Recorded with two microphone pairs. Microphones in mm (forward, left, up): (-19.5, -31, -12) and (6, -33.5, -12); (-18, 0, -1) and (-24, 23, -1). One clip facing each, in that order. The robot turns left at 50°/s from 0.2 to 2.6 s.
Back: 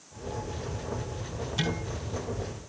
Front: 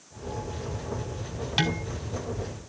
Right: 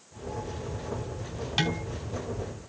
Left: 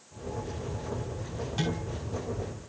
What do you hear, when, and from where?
1.6 s dishes clattering: 40° right, 3 m; by 1.8 s 50° right, 3 m